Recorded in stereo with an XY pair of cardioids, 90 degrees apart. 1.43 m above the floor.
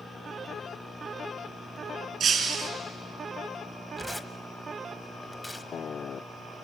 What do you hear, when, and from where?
2.2 s breaking glass: 65° right, 5 m
4.0 s tearing paper: 10° left, 1.3 m